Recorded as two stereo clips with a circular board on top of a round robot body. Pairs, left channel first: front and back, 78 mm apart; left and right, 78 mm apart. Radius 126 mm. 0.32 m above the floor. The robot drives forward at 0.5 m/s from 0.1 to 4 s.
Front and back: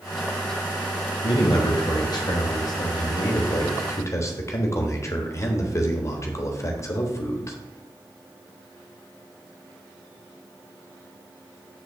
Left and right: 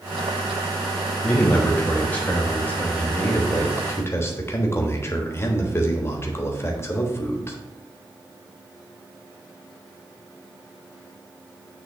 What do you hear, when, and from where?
1.2 s a man speaking: 20° left, 2.5 m; by 7.6 s 40° left, 1.3 m